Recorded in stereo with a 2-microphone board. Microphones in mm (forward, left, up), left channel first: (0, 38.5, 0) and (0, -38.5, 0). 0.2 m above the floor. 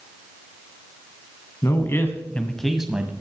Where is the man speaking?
40° left (ahead or behind), 2.0 m; by 3.1 s 15° right (ahead or behind), 1.5 m.